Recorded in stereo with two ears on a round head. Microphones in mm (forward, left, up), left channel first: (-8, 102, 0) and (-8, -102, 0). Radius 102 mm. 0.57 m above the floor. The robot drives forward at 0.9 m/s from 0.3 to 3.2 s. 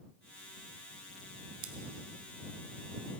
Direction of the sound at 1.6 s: 65° right (ahead or behind).